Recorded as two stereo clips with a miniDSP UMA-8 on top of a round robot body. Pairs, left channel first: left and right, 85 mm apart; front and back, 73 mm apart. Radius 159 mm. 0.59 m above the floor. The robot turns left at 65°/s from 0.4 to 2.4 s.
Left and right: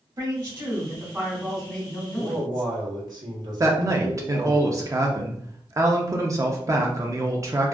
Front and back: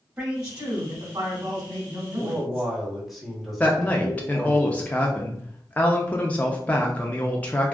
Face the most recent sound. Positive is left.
turn(degrees=-60)